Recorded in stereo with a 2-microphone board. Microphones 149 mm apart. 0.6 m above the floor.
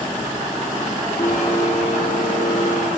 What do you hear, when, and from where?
1.2 s a blender: 60° left (ahead or behind), 5 m